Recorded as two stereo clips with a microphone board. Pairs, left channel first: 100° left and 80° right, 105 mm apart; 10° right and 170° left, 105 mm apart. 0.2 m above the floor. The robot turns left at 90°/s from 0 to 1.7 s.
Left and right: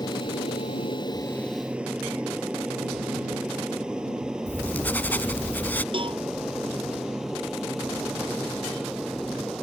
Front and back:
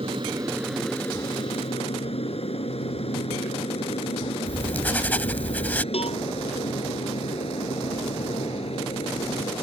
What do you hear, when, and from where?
0.0 s an aircraft: 150° left; by 9.6 s 10° left
4.5 s writing: 45° left
5.9 s a cowbell: 40° right